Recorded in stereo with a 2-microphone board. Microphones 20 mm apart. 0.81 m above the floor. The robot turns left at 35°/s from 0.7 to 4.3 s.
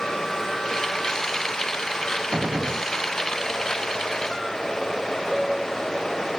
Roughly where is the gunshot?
Right.